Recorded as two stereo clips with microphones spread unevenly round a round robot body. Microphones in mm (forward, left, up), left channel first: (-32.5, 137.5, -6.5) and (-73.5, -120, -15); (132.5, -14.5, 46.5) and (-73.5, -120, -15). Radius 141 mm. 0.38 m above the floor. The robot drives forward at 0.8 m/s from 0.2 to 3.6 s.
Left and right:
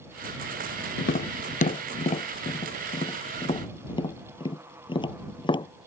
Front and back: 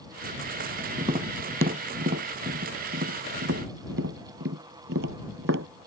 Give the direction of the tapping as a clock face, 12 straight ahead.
7 o'clock.